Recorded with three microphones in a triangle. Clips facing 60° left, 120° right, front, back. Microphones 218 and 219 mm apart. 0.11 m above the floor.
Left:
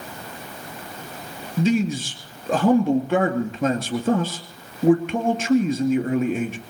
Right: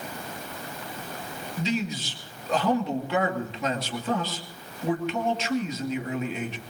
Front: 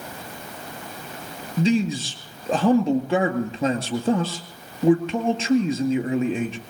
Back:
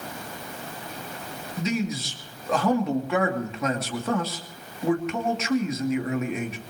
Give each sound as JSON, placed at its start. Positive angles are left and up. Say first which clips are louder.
{"t": 1.6, "sound": "a man speaking", "louder": "left 9 dB, front 7 dB", "azimuth_deg": 50, "distance_m": 2.5}